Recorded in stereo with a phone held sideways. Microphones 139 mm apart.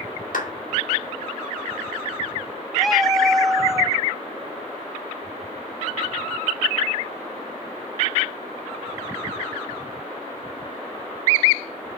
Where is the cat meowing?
Centre (ahead or behind), 1.1 m.